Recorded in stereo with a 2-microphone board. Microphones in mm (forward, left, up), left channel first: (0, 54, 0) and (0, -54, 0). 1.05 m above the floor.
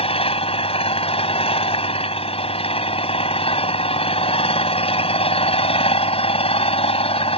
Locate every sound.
0.0 s an engine running: 65° left (ahead or behind)